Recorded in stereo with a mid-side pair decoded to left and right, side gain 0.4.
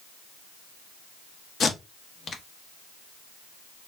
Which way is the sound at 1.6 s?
50° left.